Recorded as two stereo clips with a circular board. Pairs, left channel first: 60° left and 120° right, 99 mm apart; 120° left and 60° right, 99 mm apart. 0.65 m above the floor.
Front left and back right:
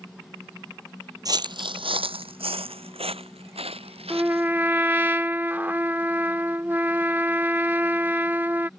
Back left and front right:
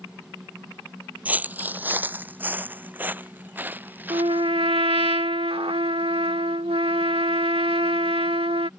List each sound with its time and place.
1.2 s footsteps: 125° right; by 4.5 s 130° right
4.1 s a trumpet: 50° right